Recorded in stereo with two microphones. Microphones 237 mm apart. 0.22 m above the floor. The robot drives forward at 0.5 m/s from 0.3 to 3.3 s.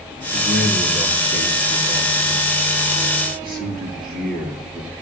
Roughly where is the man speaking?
Right.